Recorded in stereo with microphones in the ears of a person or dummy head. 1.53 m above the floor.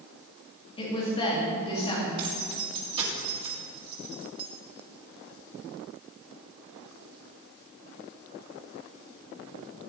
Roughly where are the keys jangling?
Right.